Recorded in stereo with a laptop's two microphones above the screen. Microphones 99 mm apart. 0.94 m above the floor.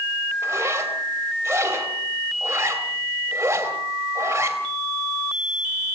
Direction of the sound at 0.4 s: 25° right (ahead or behind).